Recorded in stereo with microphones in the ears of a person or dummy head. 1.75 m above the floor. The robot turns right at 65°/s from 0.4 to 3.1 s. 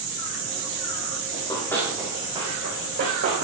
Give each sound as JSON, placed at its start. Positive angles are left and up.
{"t": 1.3, "sound": "running footsteps", "side_deg": 35, "distance_m": 4.0}